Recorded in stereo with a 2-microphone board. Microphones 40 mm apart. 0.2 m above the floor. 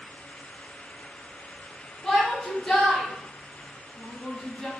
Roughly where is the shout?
Centre.